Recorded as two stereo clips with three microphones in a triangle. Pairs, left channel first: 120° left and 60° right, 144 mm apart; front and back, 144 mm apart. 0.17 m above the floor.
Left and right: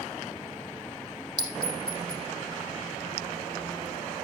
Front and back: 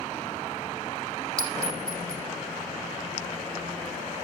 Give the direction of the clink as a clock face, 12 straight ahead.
4 o'clock.